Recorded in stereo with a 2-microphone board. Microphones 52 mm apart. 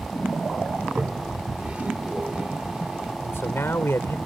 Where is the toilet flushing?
25° right (ahead or behind).